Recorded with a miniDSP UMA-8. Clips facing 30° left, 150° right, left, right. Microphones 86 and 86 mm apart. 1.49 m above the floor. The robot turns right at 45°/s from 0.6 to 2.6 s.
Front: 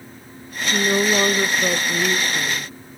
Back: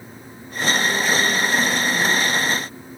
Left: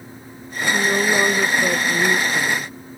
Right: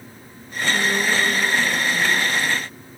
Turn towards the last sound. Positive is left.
turn(degrees=105)